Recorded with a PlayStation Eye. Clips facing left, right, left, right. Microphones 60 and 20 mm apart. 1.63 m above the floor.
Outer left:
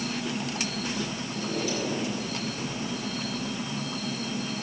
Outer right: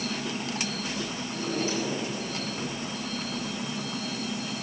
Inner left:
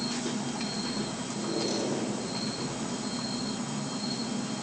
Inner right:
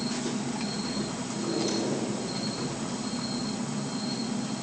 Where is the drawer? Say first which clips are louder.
Outer right 2 dB, inner right 2 dB; 35° right (ahead or behind), 8.5 m.